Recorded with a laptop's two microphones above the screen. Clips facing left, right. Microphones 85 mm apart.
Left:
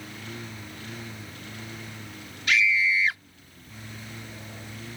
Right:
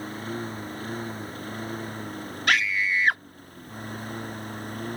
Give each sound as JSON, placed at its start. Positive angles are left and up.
{"t": 0.0, "sound": "a lawn mower", "side_deg": -40}
{"t": 2.5, "sound": "a scream", "side_deg": -60}